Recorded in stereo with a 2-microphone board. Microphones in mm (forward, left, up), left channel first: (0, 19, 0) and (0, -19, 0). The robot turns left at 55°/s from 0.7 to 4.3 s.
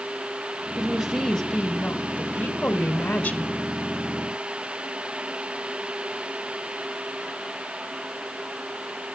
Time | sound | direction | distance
0.8 | a woman speaking | straight behind | 1.5 m